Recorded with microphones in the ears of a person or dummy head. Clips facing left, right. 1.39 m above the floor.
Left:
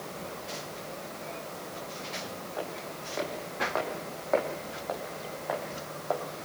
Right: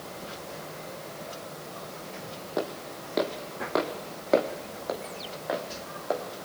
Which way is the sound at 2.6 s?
60° right (ahead or behind).